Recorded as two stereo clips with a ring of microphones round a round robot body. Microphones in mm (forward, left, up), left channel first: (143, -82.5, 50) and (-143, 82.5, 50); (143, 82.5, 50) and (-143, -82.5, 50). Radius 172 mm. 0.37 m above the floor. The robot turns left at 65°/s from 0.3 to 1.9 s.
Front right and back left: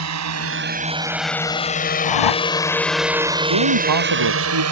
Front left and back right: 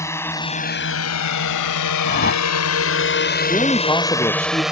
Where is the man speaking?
110° left.